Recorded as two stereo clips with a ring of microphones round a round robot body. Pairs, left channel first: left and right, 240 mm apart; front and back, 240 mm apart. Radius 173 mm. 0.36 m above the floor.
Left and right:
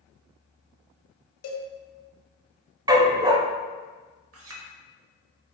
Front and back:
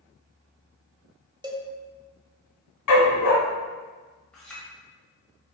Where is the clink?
85° right, 0.9 m.